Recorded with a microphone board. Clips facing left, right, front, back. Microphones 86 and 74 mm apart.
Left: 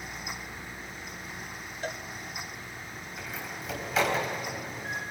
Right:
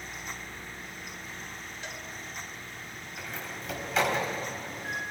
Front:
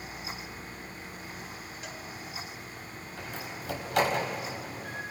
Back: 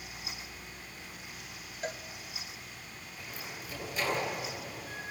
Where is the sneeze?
No sneeze in this recording.